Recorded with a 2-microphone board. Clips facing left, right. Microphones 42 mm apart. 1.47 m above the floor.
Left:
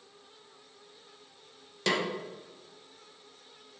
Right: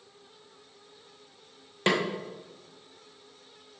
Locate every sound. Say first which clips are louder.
1.9 s a snare drum: right 3 dB; 30° right (ahead or behind), 1.3 m